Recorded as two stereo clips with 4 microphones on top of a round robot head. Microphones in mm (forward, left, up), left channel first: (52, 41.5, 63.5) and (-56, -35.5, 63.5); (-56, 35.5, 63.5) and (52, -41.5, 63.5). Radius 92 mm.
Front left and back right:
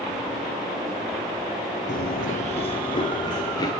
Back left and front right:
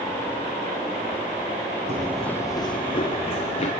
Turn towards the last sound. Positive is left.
turn(degrees=95)